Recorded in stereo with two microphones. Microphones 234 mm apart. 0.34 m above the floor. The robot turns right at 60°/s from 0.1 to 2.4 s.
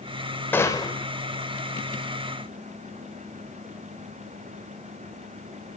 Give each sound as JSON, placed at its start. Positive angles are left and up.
{"t": 0.5, "sound": "a gunshot", "side_deg": 10, "distance_m": 0.9}